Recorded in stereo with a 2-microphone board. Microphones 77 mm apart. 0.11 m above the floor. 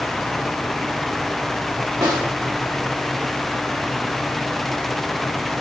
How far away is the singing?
I don't hear singing.